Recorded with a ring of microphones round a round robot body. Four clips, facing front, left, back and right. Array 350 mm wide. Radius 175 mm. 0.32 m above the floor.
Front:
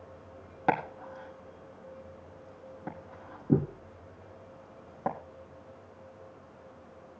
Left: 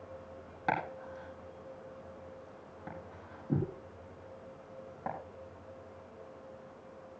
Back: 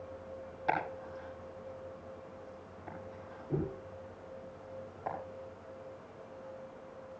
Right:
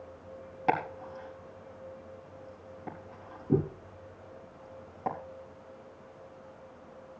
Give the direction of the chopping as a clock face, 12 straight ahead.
12 o'clock.